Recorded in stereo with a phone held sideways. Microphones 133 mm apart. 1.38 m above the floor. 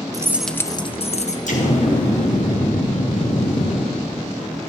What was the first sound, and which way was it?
Keys jangling, 25° right (ahead or behind).